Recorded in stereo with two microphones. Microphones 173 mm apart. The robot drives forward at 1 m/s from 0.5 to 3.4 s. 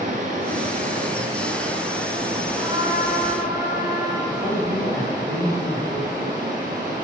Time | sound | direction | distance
0.0 | running water | 50° right (ahead or behind) | 1.8 m
2.6 | a trumpet | 30° right (ahead or behind) | 1.4 m
4.3 | a man speaking | 20° left (ahead or behind) | 4 m